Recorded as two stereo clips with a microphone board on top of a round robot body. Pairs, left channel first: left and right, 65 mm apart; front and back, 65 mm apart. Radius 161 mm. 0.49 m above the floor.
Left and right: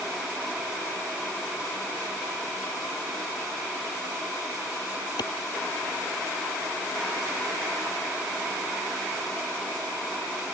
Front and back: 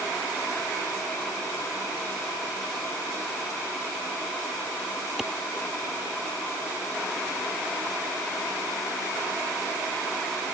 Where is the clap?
95° left.